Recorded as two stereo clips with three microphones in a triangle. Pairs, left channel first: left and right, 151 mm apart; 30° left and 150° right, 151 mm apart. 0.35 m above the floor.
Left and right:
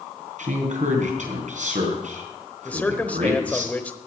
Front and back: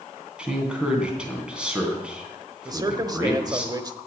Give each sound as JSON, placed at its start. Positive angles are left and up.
{"t": 0.4, "sound": "a man speaking", "azimuth_deg": -65, "distance_m": 3.0}
{"t": 2.6, "sound": "a man speaking", "azimuth_deg": 165, "distance_m": 1.0}